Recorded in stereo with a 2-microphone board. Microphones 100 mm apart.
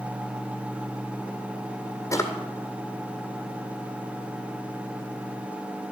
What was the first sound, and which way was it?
A drawer, 30° left (ahead or behind).